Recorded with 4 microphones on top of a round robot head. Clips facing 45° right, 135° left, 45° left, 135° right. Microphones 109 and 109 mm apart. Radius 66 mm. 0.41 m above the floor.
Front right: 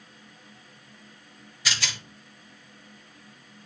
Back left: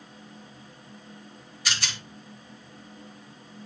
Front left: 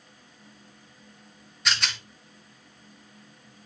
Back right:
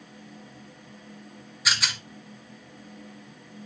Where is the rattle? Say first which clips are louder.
Even, even; 50° right, 0.6 m.